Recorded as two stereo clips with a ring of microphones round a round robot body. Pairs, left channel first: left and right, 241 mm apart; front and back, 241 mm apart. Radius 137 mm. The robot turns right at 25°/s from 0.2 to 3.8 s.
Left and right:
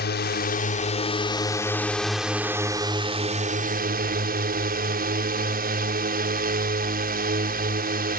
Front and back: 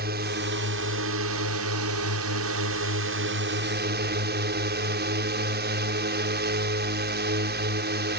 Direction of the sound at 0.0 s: 130° left.